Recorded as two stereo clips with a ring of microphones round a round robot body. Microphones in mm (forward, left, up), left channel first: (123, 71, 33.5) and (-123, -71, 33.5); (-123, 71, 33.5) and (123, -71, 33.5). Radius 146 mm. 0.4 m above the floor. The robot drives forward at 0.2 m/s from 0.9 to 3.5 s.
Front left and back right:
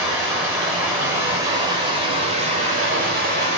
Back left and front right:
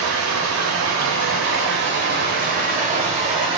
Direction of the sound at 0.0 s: 65° right.